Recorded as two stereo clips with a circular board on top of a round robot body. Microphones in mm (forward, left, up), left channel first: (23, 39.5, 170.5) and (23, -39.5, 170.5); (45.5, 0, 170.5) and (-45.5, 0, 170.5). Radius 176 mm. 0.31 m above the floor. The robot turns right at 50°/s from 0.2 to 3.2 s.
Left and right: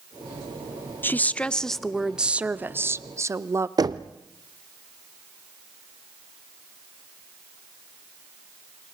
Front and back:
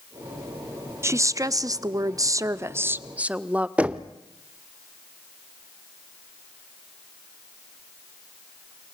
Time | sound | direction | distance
1.0 | a woman speaking | 140° left | 1.0 m
3.8 | knocking | 105° right | 1.0 m